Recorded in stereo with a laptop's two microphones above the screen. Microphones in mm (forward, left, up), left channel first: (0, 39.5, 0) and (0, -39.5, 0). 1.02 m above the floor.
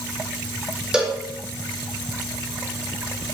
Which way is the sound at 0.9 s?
10° right (ahead or behind).